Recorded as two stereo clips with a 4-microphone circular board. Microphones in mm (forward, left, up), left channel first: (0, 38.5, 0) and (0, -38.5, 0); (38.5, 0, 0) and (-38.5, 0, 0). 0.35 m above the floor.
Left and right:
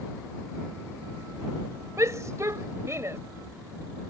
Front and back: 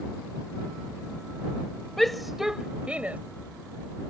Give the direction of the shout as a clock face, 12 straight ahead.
3 o'clock.